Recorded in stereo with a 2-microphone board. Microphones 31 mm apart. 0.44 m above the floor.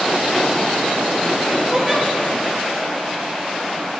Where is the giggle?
20° right (ahead or behind), 1.2 m.